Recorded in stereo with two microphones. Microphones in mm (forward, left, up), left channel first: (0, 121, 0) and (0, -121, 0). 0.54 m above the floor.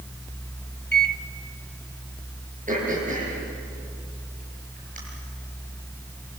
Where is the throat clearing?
35° right (ahead or behind), 7 m.